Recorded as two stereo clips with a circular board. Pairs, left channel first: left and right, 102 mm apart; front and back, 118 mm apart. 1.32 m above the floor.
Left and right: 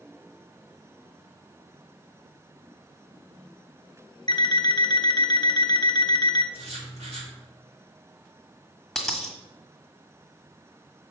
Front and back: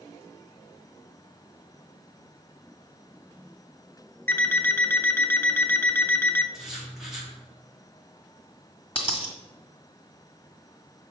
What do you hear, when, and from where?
4.3 s an alarm clock: 65° left, 0.7 m
6.5 s writing: 95° right, 2 m
8.9 s a dropped coin: 5° left, 1.6 m